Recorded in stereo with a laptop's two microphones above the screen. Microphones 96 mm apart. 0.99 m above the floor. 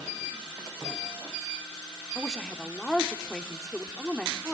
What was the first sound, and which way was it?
A woman speaking, 5° left (ahead or behind).